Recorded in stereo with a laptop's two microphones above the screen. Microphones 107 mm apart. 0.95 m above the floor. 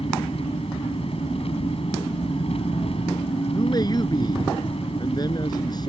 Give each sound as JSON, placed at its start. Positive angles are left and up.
{"t": 0.0, "sound": "an engine running", "side_deg": 65}
{"t": 3.5, "sound": "a man speaking", "side_deg": 40}